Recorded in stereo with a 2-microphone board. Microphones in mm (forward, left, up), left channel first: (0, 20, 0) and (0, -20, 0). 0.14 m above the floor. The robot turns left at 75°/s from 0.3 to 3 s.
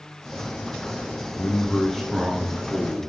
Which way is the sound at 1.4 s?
55° left.